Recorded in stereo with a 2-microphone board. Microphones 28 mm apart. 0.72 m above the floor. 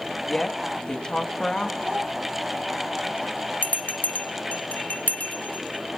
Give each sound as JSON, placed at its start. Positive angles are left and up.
{"t": 0.3, "sound": "a woman speaking", "side_deg": 25, "distance_m": 1.1}
{"t": 1.8, "sound": "a child speaking", "side_deg": -65, "distance_m": 4.0}
{"t": 3.6, "sound": "a bell", "side_deg": 65, "distance_m": 0.7}